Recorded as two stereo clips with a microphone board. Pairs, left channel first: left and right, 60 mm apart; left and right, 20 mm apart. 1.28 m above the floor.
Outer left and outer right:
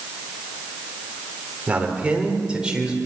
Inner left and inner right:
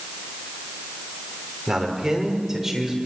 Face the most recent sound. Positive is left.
turn(degrees=-10)  # may be behind; listen again after turning